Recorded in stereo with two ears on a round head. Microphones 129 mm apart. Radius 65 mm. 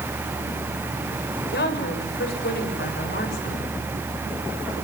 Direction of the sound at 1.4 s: 75° left (ahead or behind).